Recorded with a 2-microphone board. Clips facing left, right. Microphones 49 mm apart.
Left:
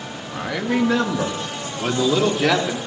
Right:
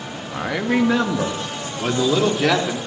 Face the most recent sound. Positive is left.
turn(degrees=0)  # may be behind; listen again after turning